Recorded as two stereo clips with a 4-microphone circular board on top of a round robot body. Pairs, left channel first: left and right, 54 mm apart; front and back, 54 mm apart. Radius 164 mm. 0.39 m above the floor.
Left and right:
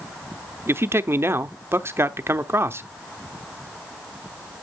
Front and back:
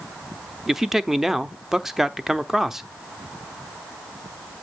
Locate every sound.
0.7 s a man speaking: 100° right, 1.0 m